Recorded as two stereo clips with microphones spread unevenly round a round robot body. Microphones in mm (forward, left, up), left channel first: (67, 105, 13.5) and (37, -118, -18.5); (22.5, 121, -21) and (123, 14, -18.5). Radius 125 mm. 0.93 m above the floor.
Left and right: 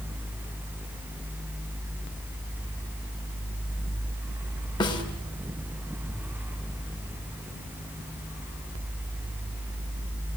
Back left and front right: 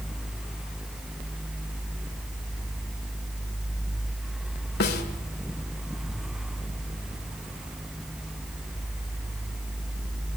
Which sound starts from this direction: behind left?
A snare drum, at 4.8 s.